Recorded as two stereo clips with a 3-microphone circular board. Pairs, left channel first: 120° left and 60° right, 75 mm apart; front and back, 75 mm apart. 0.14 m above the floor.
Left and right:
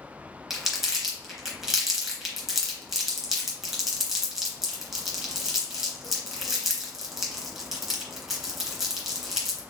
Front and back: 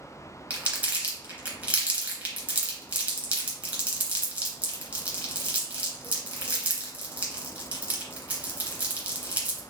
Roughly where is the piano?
I don't hear a piano.